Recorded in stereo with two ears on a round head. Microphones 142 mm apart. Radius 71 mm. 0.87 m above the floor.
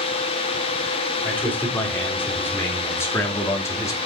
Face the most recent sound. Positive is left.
turn(degrees=20)  # may be behind; listen again after turning